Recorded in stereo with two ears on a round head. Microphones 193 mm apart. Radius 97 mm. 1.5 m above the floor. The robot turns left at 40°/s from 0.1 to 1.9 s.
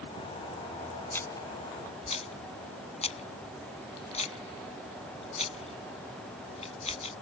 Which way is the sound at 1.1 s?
10° left (ahead or behind).